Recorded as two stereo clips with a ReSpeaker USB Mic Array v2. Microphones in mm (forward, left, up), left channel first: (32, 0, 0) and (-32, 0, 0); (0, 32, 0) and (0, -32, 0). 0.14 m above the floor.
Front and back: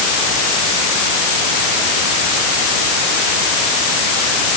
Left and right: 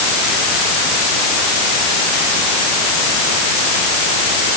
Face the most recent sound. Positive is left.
No sound to turn to.